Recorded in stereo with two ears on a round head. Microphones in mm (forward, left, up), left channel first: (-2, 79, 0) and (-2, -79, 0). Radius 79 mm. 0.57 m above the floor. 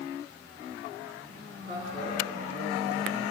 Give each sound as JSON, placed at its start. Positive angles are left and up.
{"t": 1.7, "sound": "a man speaking", "side_deg": -45, "distance_m": 6.5}